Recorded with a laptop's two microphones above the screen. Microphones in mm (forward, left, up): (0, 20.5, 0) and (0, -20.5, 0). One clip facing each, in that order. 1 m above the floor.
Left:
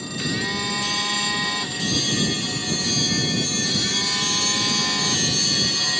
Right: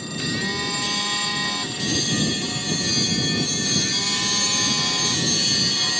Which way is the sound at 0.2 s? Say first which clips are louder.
Even; 5° left (ahead or behind).